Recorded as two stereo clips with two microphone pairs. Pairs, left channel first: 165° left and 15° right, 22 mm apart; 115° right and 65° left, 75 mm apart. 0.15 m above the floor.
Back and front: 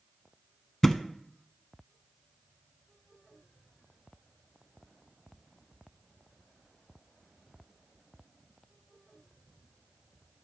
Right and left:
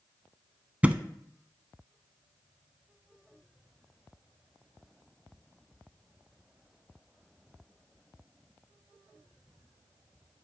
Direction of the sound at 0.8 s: 110° left.